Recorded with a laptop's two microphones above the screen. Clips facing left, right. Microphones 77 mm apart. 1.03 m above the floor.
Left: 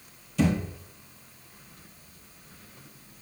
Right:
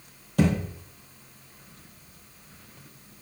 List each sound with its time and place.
0.4 s a thud: 55° right (ahead or behind), 2.5 m